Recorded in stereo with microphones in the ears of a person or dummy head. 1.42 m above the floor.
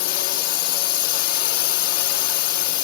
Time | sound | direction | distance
0.0 | a drone | 55° left (ahead or behind) | ?